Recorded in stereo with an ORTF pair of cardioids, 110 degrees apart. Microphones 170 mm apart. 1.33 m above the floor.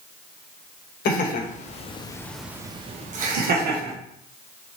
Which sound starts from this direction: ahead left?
Laughter, at 1.1 s.